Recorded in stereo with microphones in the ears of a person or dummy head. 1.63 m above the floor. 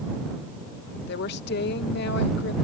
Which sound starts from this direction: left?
A woman speaking, at 1.1 s.